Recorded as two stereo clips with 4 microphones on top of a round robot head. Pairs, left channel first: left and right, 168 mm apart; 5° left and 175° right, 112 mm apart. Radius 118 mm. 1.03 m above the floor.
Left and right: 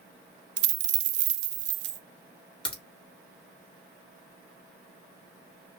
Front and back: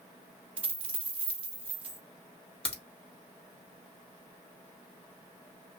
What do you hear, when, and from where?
0.6 s a dropped coin: 95° right, 0.6 m
2.6 s a crack: 30° left, 2.5 m